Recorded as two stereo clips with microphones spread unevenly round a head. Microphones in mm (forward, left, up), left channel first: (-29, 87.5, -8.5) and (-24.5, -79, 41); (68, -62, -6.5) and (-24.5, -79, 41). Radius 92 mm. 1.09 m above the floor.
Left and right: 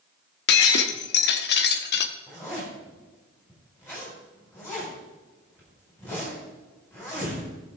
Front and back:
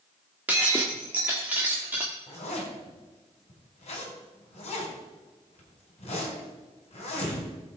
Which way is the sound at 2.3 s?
15° left.